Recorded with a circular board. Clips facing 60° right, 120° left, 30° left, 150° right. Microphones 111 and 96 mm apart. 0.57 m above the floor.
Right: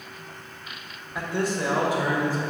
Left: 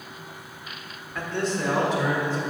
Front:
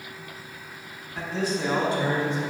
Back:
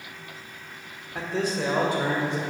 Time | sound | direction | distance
1.1 | a man speaking | 135° right | 1.5 m